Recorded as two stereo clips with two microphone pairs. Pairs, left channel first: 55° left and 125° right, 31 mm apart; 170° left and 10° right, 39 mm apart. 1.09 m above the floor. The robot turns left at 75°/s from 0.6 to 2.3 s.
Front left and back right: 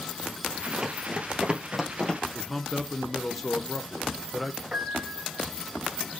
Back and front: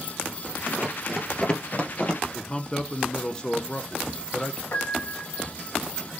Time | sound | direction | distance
0.8 | running footsteps | 40° right | 1.3 m
2.3 | a man speaking | 130° left | 0.5 m
4.7 | a piano | straight behind | 1.3 m